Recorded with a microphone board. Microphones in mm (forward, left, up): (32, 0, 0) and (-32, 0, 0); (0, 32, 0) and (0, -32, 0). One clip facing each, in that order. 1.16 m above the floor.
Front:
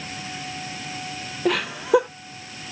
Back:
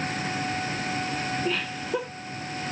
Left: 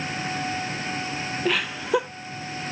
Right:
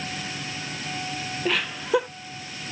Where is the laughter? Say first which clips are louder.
Front 7 dB, even; straight ahead, 0.5 m.